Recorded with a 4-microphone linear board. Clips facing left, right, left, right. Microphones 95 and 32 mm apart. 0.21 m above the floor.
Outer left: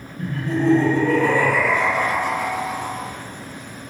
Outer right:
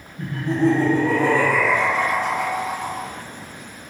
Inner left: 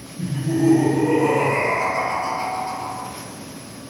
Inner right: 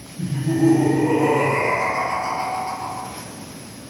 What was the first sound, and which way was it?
Laughter, 25° right (ahead or behind).